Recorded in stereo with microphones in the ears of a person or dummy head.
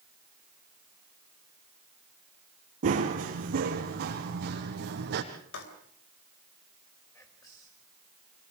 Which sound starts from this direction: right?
Running footsteps, at 2.8 s.